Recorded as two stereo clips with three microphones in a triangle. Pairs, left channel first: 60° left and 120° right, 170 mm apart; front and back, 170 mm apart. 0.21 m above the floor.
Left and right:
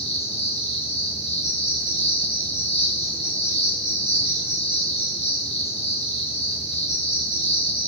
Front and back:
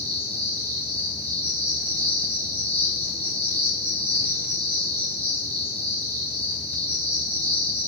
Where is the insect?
110° left, 2 m.